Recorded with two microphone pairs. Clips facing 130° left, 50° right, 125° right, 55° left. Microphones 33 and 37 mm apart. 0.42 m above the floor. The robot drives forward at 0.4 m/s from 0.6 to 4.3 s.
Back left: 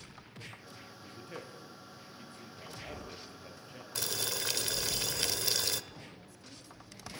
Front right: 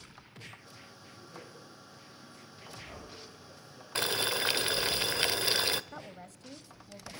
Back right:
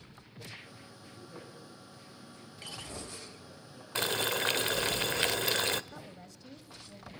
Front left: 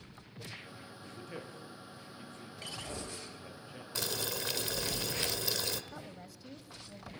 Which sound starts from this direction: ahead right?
A woman speaking, at 5.9 s.